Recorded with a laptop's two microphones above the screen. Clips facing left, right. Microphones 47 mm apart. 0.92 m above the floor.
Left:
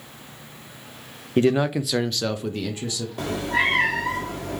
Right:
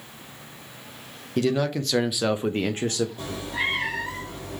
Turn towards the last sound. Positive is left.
turn(degrees=70)  # may be behind; listen again after turning